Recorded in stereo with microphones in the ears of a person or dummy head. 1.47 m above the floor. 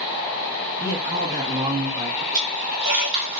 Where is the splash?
35° right (ahead or behind), 1.9 m.